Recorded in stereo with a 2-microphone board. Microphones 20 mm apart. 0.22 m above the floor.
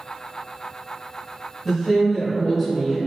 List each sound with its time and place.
1.6 s a woman speaking: 5° right (ahead or behind), 1.5 m; by 3.0 s 10° left (ahead or behind), 1.5 m